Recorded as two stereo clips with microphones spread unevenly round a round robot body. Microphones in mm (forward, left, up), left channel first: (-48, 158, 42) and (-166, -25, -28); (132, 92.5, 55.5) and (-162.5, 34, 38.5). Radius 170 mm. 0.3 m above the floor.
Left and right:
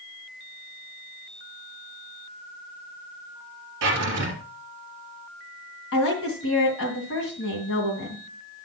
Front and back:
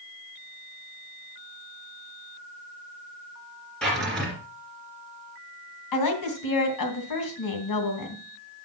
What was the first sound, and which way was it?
A drawer, 75° right.